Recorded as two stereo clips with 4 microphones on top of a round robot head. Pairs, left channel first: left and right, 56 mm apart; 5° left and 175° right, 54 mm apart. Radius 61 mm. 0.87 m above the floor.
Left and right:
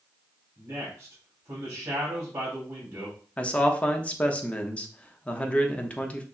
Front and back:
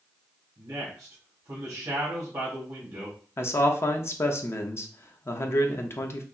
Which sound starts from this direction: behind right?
A man speaking, at 0.6 s.